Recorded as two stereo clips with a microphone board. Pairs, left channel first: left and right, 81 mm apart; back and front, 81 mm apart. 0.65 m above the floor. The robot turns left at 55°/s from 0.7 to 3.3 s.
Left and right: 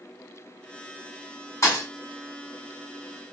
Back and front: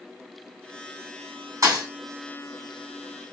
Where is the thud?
45° left, 1.5 m; by 1.9 s 30° left, 1.5 m.